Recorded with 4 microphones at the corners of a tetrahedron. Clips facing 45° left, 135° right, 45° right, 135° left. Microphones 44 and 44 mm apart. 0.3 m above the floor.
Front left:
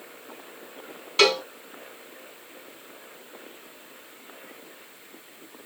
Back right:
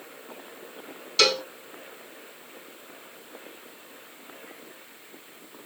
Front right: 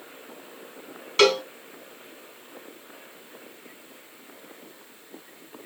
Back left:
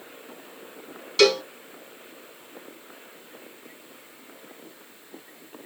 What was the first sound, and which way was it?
A cowbell, 10° right.